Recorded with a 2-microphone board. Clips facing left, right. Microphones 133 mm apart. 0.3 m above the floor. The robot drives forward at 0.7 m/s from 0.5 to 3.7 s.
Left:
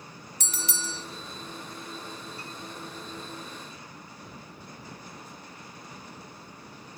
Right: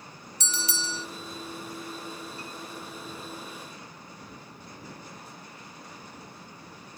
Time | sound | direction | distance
0.4 | a bell | 50° left (ahead or behind) | 1.1 m